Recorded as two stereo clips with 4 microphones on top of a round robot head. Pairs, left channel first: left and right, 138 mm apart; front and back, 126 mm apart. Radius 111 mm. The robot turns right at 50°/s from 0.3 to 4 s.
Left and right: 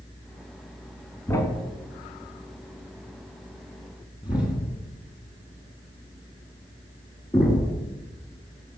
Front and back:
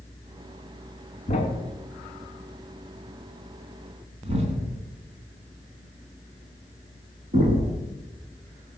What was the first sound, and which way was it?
A thud, 20° left.